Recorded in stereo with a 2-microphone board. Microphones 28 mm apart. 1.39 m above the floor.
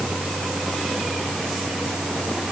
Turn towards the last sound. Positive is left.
No sound to turn to.